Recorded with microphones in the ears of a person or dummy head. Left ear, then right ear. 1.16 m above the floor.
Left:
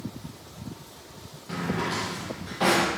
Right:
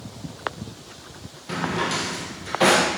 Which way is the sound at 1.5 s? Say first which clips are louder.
Right 5 dB; 20° right (ahead or behind).